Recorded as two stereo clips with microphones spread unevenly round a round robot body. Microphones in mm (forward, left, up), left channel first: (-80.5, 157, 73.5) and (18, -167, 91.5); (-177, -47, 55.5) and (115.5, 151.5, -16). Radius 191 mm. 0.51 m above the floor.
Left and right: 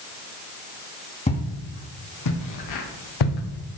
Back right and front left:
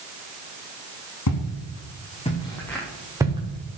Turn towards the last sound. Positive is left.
turn(degrees=105)